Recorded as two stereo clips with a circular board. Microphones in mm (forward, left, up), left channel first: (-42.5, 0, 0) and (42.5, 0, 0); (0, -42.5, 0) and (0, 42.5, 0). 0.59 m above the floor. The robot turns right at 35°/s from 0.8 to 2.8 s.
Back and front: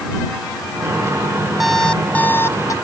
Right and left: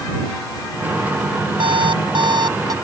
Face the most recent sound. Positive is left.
turn(degrees=130)